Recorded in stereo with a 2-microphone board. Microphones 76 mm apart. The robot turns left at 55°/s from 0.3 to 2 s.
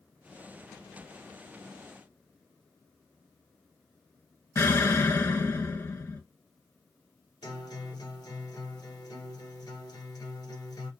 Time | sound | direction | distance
4.5 | an explosion | 35° left (ahead or behind) | 1.4 m
7.4 | a guitar | 60° left (ahead or behind) | 1.1 m